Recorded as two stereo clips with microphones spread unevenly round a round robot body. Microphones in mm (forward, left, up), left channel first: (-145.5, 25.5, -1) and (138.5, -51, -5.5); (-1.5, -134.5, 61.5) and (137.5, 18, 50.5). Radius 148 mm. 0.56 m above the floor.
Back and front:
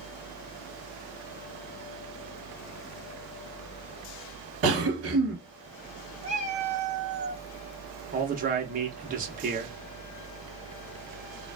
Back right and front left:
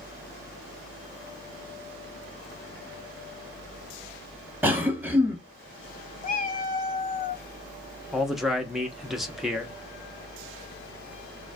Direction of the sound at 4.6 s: 25° right.